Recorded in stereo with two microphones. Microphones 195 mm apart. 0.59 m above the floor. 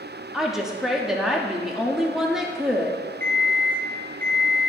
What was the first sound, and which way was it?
A woman speaking, centre (ahead or behind).